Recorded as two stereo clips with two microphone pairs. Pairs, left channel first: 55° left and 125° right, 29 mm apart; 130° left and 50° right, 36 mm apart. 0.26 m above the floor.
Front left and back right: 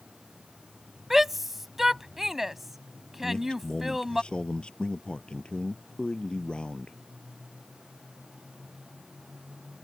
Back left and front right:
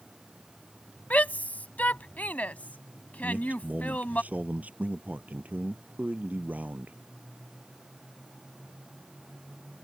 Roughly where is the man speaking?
Ahead.